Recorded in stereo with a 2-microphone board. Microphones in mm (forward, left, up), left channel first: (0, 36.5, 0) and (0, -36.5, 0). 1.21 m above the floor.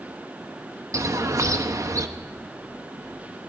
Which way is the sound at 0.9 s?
45° right (ahead or behind).